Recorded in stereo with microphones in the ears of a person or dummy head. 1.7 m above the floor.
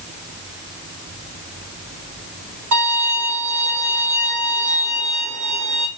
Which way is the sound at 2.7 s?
60° right (ahead or behind).